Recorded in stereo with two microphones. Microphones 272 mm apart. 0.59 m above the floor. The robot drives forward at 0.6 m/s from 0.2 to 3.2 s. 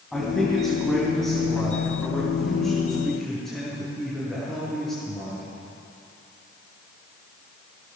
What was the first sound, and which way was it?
A man speaking, centre (ahead or behind).